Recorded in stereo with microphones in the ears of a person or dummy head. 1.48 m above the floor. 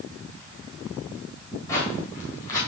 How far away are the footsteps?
About 4 m.